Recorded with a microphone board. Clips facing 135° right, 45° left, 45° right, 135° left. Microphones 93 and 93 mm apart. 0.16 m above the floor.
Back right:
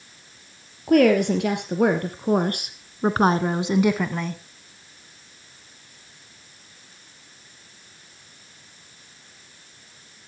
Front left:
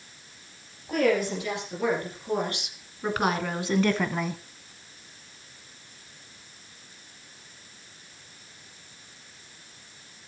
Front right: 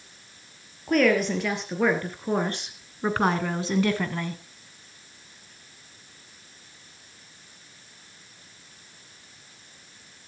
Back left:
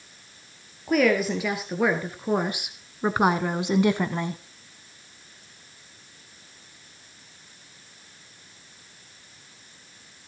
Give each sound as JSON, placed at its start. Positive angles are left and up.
{"t": 0.9, "sound": "a woman speaking", "azimuth_deg": -140, "distance_m": 3.0}